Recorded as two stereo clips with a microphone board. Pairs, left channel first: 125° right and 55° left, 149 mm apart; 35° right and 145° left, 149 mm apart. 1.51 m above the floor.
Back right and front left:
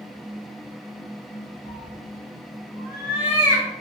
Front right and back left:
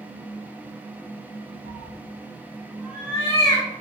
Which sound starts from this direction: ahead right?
A cat meowing, at 1.6 s.